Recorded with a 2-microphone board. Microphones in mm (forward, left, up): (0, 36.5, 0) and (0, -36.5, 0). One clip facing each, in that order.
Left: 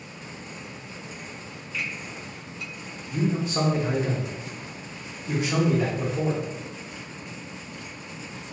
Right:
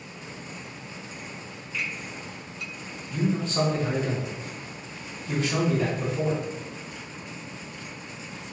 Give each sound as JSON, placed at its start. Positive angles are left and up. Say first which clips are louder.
{"t": 1.7, "sound": "a finger snap", "louder": "even", "side_deg": 5, "distance_m": 1.8}
{"t": 3.1, "sound": "a man speaking", "louder": "even", "side_deg": 15, "distance_m": 0.8}